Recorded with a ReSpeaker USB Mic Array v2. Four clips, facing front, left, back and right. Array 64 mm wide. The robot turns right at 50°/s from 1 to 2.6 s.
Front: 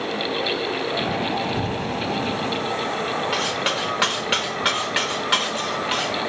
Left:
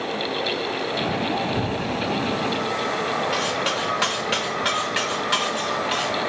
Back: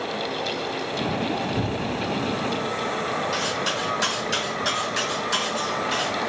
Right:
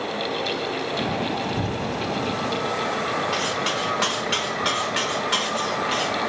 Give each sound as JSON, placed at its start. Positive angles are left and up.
{"t": 1.6, "sound": "a cupboard door", "azimuth_deg": 145, "distance_m": 1.4}
{"t": 3.3, "sound": "cutlery clinking", "azimuth_deg": 5, "distance_m": 0.9}